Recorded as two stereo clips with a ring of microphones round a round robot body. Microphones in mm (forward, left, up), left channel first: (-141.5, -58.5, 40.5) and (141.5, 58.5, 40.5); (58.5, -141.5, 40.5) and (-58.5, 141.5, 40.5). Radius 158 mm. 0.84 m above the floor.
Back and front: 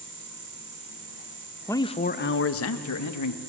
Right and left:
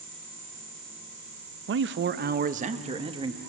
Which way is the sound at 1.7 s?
125° left.